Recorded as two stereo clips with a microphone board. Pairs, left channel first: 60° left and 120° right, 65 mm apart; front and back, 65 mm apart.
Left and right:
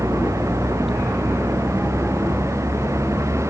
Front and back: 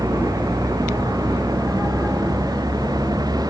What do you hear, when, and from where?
0.0 s a vehicle: 160° right; by 3.5 s 165° right